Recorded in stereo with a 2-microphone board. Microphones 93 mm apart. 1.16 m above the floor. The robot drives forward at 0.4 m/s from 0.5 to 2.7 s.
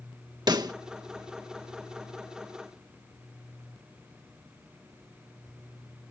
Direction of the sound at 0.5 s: 50° right (ahead or behind).